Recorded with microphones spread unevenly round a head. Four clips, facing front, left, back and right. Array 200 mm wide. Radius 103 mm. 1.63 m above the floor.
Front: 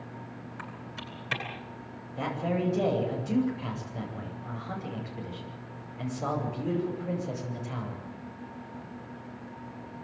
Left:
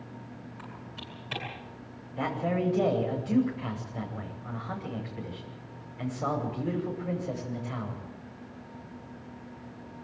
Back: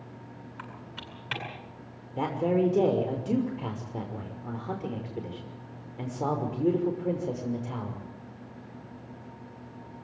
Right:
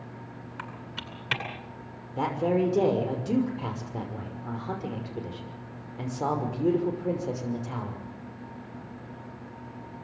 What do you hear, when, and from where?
0.6 s typing on a keyboard: 75° right, 9 m
2.2 s a man speaking: 135° right, 6 m